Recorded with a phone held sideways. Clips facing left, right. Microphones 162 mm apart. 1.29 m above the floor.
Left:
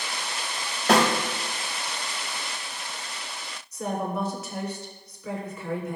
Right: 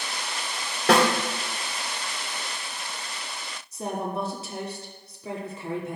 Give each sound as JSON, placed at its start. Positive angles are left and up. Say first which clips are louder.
{"t": 0.9, "sound": "a snare drum", "louder": "right 1 dB", "side_deg": -80, "distance_m": 3.0}
{"t": 3.7, "sound": "a woman speaking", "louder": "left 1 dB", "side_deg": -30, "distance_m": 2.5}